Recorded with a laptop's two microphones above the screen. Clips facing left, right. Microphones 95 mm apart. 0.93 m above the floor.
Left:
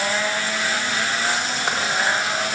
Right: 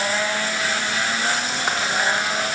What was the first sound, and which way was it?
Only background noise.